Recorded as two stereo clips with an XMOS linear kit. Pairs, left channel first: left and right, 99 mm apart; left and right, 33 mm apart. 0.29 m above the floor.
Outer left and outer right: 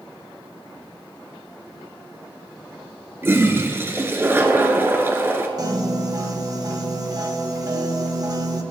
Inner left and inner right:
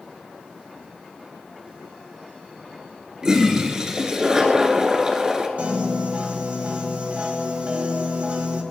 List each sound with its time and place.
3.2 s a toilet flushing: 25° right (ahead or behind), 1.7 m
5.6 s a piano: 40° right (ahead or behind), 1.7 m